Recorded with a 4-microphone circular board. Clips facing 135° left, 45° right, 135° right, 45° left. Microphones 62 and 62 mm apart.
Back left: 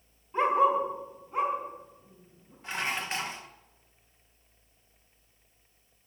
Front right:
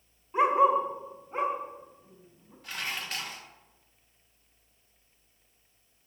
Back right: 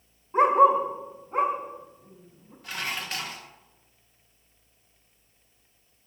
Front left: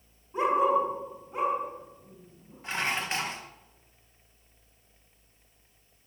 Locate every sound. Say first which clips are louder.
0.3 s a dog barking: front right 1 dB, back right 6 dB; 120° right, 2.5 m; by 2.5 s 85° right, 5 m
2.6 s dishes clattering: back left 4 dB, front left 3 dB; 85° left, 0.9 m